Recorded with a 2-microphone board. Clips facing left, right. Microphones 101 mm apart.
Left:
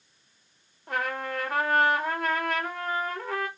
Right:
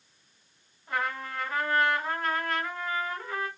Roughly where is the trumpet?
Left.